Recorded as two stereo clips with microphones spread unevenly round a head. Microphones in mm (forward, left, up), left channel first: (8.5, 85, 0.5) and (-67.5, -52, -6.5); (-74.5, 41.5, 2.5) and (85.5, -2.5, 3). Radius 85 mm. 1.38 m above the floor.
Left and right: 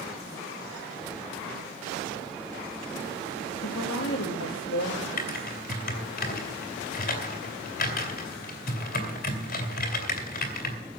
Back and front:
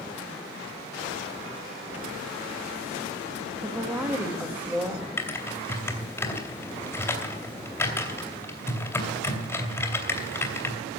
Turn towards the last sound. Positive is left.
turn(degrees=90)